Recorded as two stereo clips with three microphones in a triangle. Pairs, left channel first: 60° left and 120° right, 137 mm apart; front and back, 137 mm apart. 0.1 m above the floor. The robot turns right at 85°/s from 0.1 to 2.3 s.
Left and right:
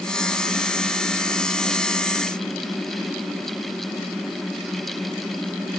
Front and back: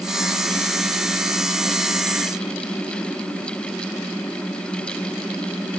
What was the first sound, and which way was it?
Only background noise.